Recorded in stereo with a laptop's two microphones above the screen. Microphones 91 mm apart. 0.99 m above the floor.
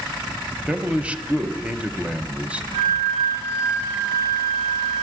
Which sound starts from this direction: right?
A flute, at 2.7 s.